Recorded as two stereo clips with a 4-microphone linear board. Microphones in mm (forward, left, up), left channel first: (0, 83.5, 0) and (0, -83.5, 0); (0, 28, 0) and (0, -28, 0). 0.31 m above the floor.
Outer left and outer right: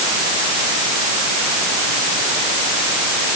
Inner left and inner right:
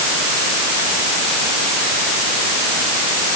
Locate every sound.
Only background noise.